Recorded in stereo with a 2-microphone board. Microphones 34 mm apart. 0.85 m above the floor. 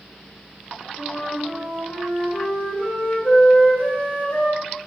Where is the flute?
65° left (ahead or behind), 1.2 m.